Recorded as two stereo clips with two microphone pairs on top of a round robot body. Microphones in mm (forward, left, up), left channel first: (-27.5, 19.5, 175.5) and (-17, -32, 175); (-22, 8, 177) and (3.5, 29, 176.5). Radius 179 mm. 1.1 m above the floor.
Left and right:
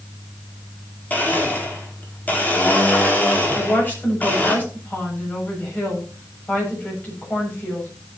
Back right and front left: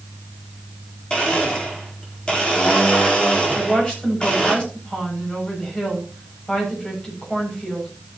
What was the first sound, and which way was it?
A blender, 160° left.